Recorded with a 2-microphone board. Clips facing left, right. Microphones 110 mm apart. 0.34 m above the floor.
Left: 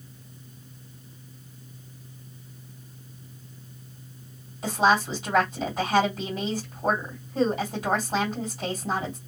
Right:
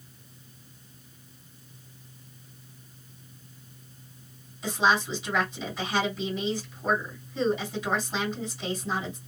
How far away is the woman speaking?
About 2 m.